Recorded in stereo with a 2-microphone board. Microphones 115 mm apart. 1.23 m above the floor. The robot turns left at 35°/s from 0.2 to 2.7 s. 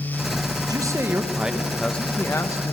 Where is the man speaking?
145° right, 1.1 m; by 2.7 s 145° left, 1.1 m.